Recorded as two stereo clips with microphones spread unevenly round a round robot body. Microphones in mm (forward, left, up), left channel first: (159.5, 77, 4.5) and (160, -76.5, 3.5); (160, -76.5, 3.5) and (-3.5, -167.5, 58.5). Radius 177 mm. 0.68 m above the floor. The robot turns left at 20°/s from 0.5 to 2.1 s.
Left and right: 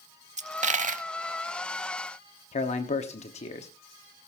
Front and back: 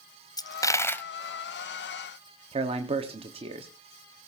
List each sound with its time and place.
0.4 s a dropped coin: 50° right, 0.8 m; by 1.1 s 60° right, 0.8 m
2.5 s a man speaking: 135° left, 1.0 m